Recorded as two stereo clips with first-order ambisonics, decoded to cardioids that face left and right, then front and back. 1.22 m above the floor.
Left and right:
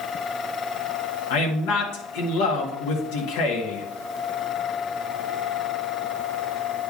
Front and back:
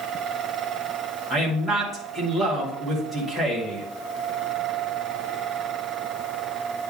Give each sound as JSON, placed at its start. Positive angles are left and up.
{"t": 1.3, "sound": "a man speaking", "azimuth_deg": 90, "distance_m": 1.8}